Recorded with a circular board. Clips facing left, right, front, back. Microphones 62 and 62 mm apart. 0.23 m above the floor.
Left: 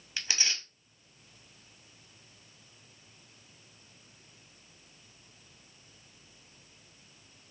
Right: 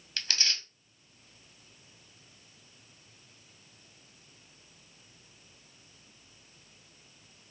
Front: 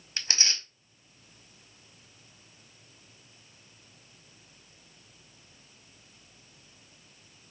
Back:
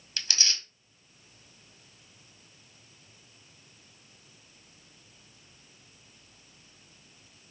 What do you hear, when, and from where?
0.2 s tearing paper: 20° left, 0.5 m